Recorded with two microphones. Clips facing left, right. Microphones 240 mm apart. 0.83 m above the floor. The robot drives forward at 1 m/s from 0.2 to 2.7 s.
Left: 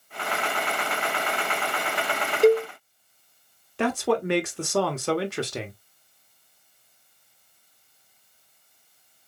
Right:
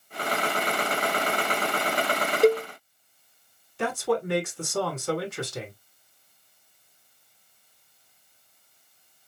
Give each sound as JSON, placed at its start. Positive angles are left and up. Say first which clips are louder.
{"t": 2.4, "sound": "a cowbell", "louder": "left 2 dB", "side_deg": 0, "distance_m": 1.4}
{"t": 3.8, "sound": "a man speaking", "louder": "left 2 dB", "side_deg": 70, "distance_m": 1.3}